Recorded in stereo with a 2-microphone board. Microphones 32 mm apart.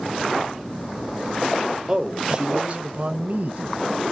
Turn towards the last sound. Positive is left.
turn(degrees=-50)  # may be behind; listen again after turning